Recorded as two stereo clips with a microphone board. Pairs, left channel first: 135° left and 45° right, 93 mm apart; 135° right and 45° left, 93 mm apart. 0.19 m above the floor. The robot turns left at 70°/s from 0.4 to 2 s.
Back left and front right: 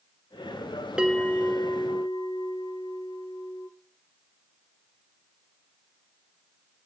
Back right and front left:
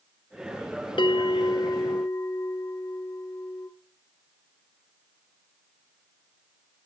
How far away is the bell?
About 0.6 m.